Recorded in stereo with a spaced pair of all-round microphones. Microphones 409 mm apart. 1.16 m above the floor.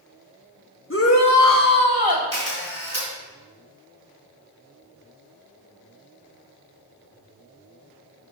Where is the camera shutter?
35° left (ahead or behind), 3 m.